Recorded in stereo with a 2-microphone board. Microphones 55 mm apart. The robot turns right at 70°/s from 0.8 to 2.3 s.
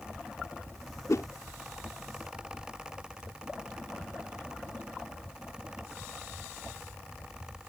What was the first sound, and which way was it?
A whoosh, 70° left (ahead or behind).